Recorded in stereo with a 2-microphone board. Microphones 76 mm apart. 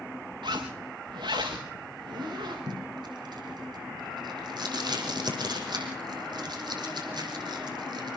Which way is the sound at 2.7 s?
70° right (ahead or behind).